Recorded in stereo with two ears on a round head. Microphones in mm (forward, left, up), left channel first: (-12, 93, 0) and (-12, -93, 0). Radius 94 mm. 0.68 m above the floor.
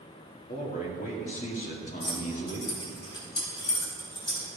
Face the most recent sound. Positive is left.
turn(degrees=25)  # may be behind; listen again after turning